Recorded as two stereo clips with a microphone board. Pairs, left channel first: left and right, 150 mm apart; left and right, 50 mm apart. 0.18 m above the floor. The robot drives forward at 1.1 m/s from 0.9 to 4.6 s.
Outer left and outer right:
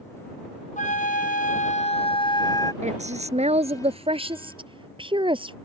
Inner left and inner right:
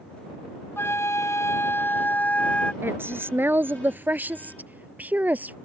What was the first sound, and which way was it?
A flute, 65° left (ahead or behind).